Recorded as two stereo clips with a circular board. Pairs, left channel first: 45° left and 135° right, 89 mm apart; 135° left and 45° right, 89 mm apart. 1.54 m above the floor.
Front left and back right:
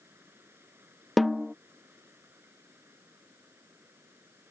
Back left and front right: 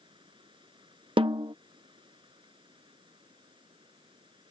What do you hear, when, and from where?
0.0 s running water: 70° right
1.2 s a snare drum: 45° right